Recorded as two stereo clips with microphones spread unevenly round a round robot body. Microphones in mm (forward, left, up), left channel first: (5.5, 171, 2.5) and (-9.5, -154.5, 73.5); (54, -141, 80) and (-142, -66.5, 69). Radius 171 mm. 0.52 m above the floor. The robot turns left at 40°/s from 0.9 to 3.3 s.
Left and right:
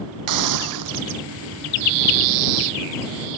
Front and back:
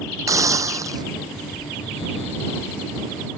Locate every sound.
0.3 s a hiss: 125° right; by 1.0 s 130° right